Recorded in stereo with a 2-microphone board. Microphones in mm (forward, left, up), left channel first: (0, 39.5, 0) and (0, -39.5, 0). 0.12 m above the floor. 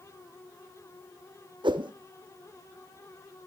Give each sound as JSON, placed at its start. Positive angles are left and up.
{"t": 1.6, "sound": "a whoosh", "side_deg": -85, "distance_m": 1.1}